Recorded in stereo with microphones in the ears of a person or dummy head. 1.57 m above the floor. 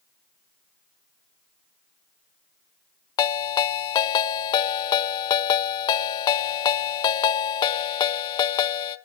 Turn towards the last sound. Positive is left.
turn(degrees=35)  # may be behind; listen again after turning